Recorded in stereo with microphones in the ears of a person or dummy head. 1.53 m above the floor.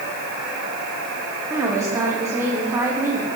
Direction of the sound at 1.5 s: 15° right (ahead or behind).